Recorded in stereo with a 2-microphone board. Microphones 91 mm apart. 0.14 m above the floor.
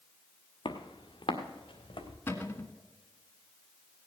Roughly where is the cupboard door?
Left.